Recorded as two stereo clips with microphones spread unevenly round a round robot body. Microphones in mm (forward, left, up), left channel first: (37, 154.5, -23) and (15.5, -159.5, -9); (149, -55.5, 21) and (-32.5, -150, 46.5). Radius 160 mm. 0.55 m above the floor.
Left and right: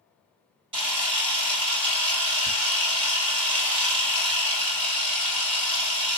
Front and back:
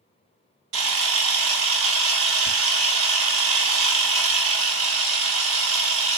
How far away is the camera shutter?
About 1.2 m.